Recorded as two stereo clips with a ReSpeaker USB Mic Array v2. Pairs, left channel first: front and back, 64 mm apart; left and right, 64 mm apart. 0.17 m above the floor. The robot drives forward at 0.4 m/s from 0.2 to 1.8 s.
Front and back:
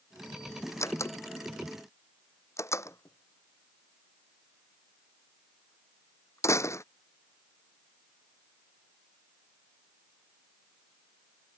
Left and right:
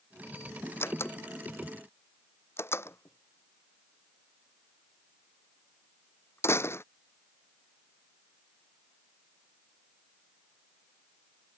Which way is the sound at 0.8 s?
40° left.